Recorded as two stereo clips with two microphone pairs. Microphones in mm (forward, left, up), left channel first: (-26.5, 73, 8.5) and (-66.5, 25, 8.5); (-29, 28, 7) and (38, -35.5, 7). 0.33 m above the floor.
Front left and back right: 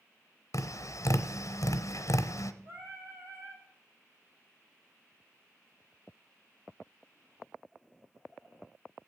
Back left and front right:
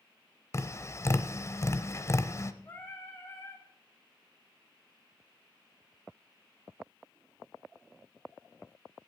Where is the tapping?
80° left, 0.6 m.